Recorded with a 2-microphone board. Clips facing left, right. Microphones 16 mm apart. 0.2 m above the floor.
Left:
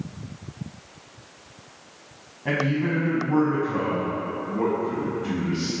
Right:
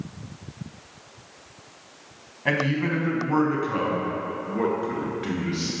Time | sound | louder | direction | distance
2.5 | a man speaking | even | 30° right (ahead or behind) | 1.2 m